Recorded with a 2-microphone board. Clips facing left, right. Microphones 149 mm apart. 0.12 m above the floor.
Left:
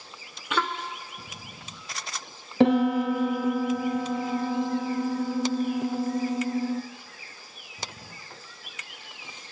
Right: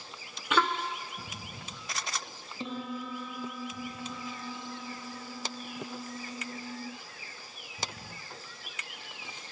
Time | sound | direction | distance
2.6 | a piano | 75° left (ahead or behind) | 1.0 m